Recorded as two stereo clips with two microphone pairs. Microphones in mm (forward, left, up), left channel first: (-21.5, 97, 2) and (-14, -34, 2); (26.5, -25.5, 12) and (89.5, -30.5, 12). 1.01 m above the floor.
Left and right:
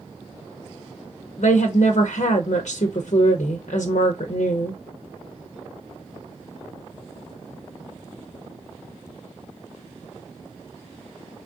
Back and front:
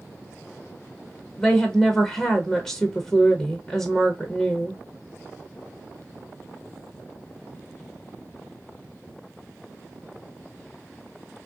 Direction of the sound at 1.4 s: 90° left.